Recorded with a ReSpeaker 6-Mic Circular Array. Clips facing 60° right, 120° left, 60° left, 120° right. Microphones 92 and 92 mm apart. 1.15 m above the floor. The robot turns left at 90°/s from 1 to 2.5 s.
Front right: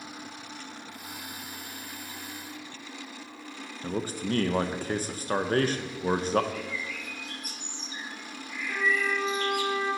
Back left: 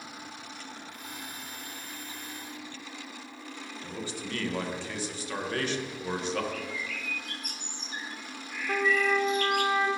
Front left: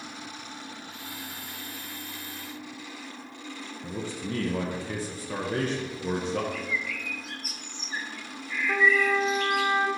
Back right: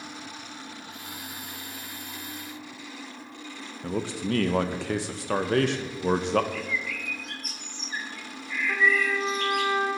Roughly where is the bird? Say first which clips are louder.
Front right 1 dB, back right 1 dB; behind left.